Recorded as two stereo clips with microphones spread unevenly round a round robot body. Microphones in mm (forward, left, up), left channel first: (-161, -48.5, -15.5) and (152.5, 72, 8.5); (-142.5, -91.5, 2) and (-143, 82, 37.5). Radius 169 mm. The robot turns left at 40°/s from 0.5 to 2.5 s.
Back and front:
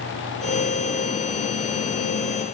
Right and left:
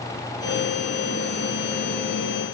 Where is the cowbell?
I don't hear a cowbell.